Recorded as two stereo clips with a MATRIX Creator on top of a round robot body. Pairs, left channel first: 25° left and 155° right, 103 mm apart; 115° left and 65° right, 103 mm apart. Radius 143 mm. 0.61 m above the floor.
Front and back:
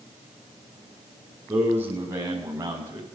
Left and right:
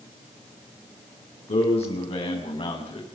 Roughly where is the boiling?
I don't hear boiling.